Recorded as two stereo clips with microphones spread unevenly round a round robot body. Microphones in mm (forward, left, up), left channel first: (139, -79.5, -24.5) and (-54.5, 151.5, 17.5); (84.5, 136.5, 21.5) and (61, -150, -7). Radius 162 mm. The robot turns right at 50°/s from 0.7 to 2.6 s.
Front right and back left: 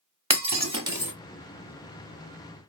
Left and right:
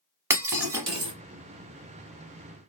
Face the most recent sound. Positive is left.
turn(degrees=-85)